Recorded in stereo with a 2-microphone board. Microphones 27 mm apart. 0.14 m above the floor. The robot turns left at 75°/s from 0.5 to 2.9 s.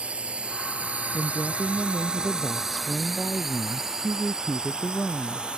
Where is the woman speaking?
90° right; by 5.5 s 140° left.